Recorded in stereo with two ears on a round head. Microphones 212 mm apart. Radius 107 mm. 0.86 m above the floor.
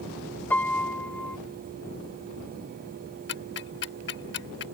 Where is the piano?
10° left (ahead or behind).